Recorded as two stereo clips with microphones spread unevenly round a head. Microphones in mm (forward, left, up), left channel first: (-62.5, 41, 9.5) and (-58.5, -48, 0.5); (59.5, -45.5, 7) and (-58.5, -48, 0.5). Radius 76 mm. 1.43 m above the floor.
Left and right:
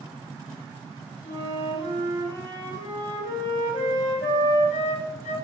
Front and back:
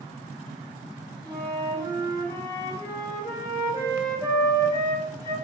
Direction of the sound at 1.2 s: 75° left.